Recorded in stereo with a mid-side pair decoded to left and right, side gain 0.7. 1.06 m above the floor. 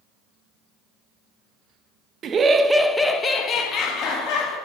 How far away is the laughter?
About 0.9 m.